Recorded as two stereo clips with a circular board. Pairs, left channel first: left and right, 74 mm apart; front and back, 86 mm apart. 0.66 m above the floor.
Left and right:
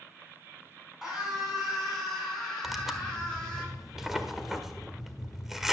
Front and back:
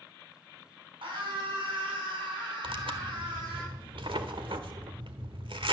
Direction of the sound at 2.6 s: 175° right.